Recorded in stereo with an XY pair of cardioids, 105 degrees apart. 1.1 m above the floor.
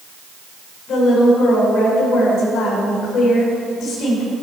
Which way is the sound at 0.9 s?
65° left.